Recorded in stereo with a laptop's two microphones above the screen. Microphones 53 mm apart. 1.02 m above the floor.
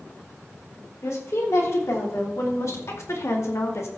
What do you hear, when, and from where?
1.0 s a woman speaking: 70° left (ahead or behind), 3.5 m; by 3.9 s 65° left (ahead or behind), 1.7 m